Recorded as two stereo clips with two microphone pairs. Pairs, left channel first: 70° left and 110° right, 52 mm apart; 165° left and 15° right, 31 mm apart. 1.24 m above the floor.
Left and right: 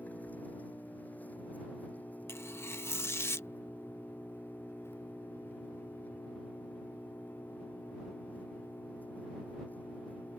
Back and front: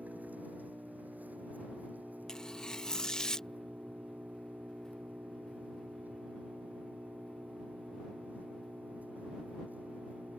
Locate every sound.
0.0 s an engine running: 15° left
2.3 s tearing paper: 100° left